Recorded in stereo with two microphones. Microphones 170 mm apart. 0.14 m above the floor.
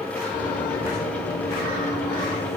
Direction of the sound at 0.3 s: 50° left (ahead or behind).